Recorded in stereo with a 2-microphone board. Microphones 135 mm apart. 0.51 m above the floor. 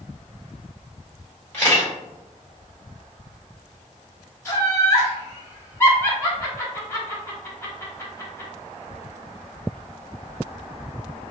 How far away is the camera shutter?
About 1.6 m.